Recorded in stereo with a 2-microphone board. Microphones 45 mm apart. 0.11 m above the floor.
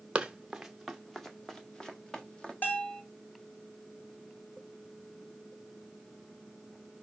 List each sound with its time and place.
0.1 s running footsteps: 25° right (ahead or behind), 1.2 m; by 2.5 s 20° left (ahead or behind), 2.5 m
2.6 s a bell: 45° left (ahead or behind), 2.5 m